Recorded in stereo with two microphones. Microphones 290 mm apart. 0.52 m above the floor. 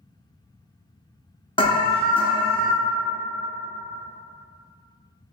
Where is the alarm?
20° left (ahead or behind), 0.5 m.